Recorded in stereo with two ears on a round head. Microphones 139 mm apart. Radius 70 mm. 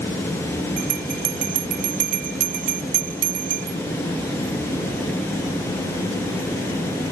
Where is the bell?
55° right (ahead or behind).